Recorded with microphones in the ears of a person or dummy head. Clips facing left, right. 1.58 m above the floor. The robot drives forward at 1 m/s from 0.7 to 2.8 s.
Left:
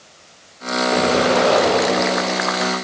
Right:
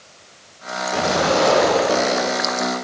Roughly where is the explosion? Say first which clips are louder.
Left 2 dB; left.